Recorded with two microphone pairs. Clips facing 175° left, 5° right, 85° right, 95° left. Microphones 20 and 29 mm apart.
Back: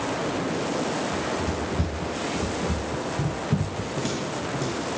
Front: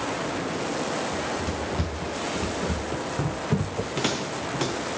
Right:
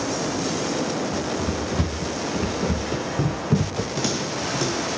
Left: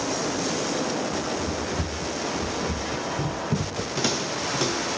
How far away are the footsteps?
About 7.5 m.